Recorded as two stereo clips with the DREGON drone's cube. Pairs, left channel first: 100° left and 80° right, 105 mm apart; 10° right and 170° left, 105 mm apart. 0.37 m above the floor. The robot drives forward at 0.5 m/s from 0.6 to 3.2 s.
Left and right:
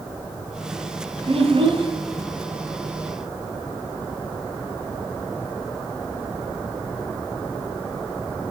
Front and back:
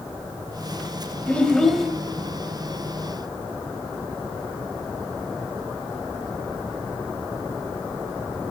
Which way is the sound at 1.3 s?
85° right.